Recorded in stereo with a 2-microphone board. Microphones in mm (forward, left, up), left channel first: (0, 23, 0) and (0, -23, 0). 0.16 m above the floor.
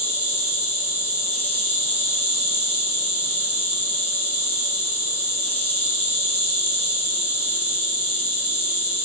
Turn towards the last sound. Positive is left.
turn(degrees=60)  # may be behind; listen again after turning